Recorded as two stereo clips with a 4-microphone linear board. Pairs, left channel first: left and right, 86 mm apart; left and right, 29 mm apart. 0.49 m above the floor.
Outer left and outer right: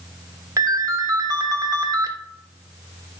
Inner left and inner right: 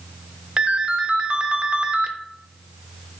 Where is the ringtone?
40° right (ahead or behind), 0.5 m.